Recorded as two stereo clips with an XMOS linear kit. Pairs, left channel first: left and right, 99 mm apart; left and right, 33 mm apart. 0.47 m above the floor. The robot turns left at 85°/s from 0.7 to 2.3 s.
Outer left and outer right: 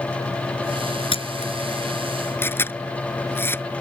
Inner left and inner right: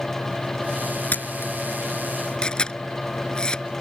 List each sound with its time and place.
1.1 s a camera shutter: 55° left (ahead or behind); by 3.6 s 20° left (ahead or behind)